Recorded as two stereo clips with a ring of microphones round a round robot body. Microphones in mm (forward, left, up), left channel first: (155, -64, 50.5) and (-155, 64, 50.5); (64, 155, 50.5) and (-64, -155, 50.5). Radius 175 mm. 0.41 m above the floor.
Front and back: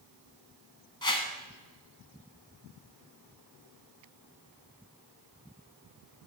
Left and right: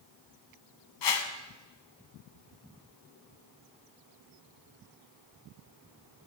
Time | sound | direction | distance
1.0 | a whoosh | 55° left | 1.1 m